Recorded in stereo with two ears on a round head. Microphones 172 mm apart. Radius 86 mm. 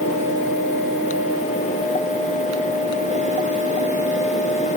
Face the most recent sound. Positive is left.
No sound to turn to.